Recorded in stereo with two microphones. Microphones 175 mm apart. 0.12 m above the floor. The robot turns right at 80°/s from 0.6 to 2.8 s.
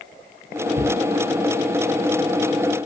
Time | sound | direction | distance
0.8 | a cupboard door | 50° left (ahead or behind) | 1.6 m